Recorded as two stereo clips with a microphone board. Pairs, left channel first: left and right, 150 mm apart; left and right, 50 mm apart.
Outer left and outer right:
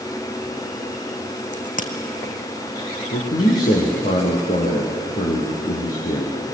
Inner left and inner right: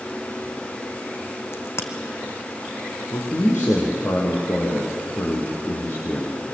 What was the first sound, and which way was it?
A crack, 55° left (ahead or behind).